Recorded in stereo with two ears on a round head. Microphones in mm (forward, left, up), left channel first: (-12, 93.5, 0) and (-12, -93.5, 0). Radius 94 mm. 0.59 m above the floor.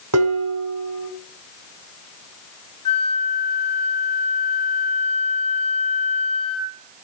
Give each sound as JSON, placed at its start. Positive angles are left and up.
{"t": 0.1, "sound": "dishes clattering", "side_deg": -80, "distance_m": 4.0}
{"t": 2.9, "sound": "a flute", "side_deg": 30, "distance_m": 1.5}